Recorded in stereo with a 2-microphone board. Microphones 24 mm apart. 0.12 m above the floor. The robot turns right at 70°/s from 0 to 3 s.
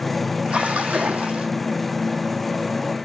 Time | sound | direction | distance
0.5 | a splash | 130° right | 1.2 m